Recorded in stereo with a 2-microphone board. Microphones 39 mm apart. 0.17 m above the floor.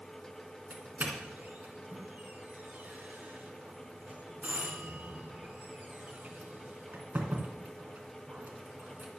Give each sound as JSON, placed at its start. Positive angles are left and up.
{"t": 0.7, "sound": "a doorbell", "side_deg": -45, "distance_m": 2.5}